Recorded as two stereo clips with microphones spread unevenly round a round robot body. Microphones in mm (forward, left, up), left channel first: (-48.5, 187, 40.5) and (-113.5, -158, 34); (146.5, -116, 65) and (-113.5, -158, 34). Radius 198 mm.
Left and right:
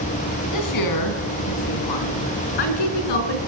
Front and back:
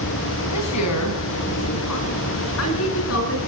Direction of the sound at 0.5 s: 40° left.